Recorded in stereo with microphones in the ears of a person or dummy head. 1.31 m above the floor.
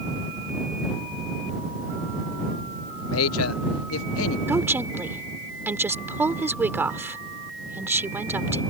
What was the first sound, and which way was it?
A man speaking, 70° left (ahead or behind).